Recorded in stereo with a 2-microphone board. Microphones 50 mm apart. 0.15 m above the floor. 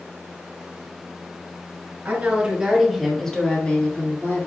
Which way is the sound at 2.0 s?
35° right (ahead or behind).